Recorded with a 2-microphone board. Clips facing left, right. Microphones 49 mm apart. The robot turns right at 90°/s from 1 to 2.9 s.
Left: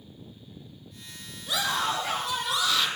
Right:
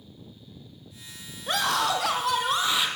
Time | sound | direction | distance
1.5 | a scream | 135° right | 6 m